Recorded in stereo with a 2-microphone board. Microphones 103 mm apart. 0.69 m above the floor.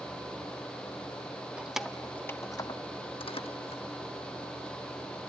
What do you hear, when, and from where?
1.6 s keys jangling: 10° right (ahead or behind), 0.8 m; by 3.8 s 70° left (ahead or behind), 1.1 m